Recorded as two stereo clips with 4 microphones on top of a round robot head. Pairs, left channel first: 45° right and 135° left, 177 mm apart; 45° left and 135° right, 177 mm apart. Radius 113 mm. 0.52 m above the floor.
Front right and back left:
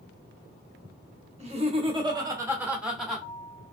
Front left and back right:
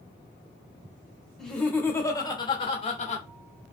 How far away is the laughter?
About 1.4 m.